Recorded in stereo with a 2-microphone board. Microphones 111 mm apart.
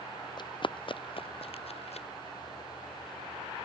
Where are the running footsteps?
40° left (ahead or behind); by 2.1 s 65° left (ahead or behind).